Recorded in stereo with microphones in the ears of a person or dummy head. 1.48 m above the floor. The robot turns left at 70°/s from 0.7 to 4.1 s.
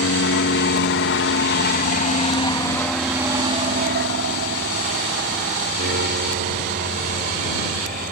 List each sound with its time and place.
0.0 s an aircraft: 65° left (ahead or behind); by 8.1 s 45° right (ahead or behind)